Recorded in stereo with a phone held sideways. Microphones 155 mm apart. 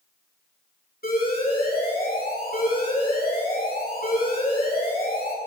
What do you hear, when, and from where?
1.0 s an alarm: 85° left, 7.5 m